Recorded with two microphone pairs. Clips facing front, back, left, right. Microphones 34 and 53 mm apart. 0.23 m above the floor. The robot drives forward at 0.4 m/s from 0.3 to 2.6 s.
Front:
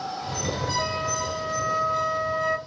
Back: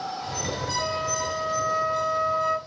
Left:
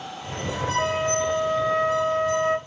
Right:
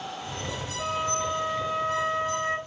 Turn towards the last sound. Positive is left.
turn(degrees=100)